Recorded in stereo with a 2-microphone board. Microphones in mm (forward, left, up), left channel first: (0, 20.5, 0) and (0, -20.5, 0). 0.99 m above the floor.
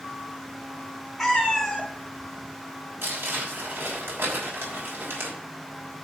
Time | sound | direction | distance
1.2 | a cat meowing | 5° left (ahead or behind) | 2.5 m
3.0 | crumpling | 75° right (ahead or behind) | 3 m